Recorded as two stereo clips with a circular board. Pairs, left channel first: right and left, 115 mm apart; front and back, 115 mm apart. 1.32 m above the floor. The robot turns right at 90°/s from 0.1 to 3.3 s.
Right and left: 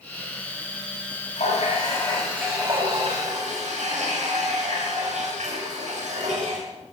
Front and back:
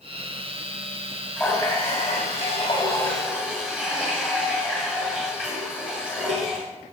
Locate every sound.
1.4 s a running tap: 80° right, 4.5 m; by 6.7 s 95° left, 4.5 m